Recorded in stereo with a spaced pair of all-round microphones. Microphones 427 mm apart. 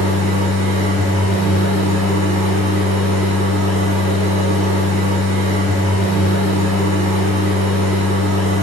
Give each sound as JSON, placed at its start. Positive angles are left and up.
{"t": 0.0, "sound": "a machine running", "side_deg": -15, "distance_m": 1.7}